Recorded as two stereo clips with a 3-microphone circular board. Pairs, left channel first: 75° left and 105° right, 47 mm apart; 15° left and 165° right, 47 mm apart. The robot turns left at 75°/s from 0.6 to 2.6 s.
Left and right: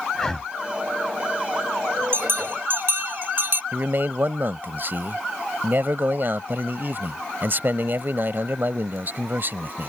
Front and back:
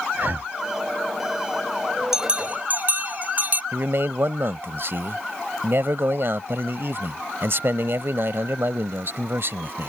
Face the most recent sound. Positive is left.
turn(degrees=-140)